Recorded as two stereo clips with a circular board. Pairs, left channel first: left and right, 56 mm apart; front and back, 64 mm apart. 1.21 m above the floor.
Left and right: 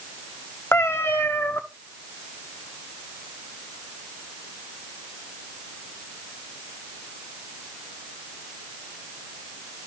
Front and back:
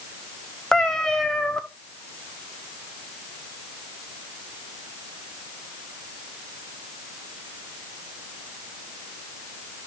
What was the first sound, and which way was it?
A cat meowing, 80° left.